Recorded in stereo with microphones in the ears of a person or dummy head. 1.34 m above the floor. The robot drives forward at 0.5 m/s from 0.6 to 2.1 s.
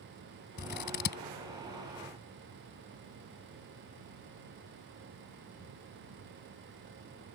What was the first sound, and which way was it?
Scissors, 55° left (ahead or behind).